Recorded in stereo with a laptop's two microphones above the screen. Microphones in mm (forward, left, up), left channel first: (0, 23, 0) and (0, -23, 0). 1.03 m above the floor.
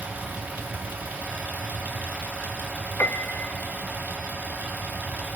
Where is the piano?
50° left (ahead or behind), 0.8 m.